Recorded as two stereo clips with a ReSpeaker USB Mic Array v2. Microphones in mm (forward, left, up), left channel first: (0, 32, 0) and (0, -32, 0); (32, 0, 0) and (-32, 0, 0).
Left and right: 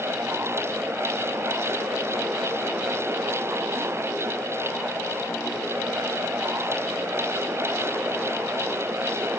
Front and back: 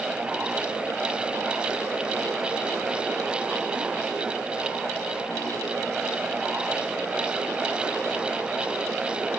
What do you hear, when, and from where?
Only background noise.